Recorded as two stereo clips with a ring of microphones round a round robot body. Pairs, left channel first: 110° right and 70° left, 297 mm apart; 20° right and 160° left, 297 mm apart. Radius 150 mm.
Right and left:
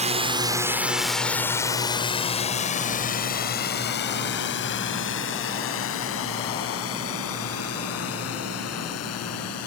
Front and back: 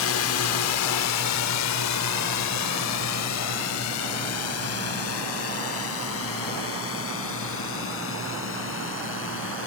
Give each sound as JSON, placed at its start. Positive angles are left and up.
{"t": 0.0, "sound": "a drone", "azimuth_deg": 5}